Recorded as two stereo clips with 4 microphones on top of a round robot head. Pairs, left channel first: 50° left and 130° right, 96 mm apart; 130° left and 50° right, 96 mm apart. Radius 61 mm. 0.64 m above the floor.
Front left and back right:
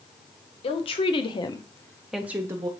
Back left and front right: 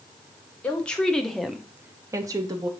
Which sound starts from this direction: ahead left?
A woman speaking, at 0.6 s.